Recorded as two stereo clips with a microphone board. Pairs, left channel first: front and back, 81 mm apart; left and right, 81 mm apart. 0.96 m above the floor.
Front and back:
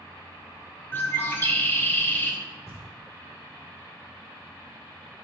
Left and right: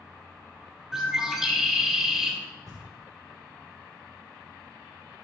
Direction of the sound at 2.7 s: 50° right.